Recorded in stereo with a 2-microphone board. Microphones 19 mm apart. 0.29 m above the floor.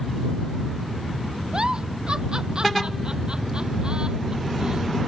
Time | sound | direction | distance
1.5 | a giggle | 50° right (ahead or behind) | ?